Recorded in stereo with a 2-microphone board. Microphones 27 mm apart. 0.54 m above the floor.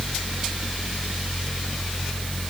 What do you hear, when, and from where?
Only background noise.